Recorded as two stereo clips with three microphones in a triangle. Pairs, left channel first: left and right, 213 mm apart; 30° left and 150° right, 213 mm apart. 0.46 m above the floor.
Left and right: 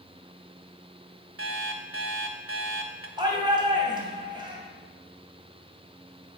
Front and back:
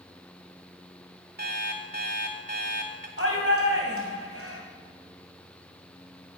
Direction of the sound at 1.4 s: 105° right.